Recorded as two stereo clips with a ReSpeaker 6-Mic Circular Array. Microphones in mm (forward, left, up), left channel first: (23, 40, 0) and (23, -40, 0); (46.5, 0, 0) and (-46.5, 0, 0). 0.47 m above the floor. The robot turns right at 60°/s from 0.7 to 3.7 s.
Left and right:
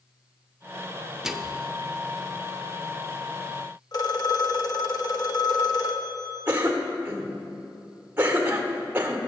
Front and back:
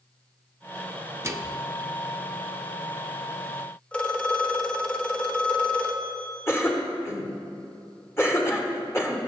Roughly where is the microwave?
Behind.